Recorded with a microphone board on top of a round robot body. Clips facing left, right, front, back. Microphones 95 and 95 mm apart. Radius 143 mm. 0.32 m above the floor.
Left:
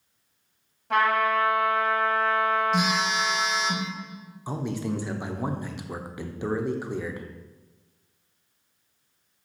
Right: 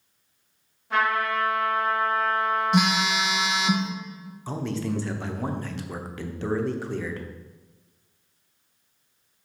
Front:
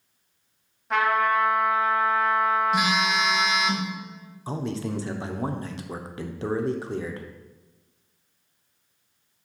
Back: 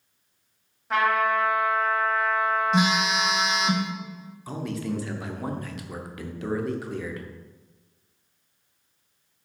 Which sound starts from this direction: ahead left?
A man speaking, at 4.5 s.